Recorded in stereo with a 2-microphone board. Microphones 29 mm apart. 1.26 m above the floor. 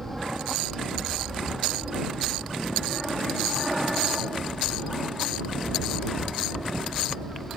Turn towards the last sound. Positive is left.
turn(degrees=-20)  # may be behind; listen again after turning